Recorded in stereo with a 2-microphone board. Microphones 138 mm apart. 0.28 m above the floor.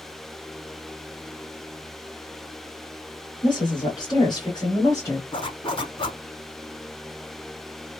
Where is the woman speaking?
35° left (ahead or behind), 1.5 m; by 5.2 s 20° left (ahead or behind), 1.6 m.